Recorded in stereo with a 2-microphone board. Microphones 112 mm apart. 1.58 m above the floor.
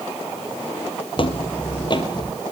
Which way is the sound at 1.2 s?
45° left (ahead or behind).